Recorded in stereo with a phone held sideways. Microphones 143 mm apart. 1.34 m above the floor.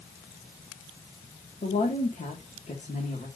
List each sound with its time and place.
1.6 s a woman speaking: 60° left (ahead or behind), 2.5 m